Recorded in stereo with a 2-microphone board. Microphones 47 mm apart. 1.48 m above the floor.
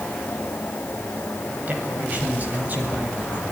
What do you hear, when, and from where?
1.7 s a man speaking: 35° right (ahead or behind), 7 m; by 3.4 s 40° right (ahead or behind), 7 m